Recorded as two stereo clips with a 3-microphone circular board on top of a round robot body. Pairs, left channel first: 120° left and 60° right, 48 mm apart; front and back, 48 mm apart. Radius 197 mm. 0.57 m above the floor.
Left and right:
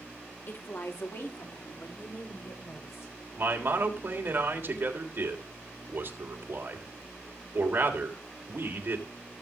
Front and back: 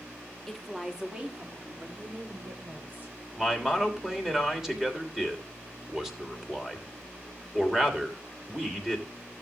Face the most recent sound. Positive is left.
turn(degrees=-95)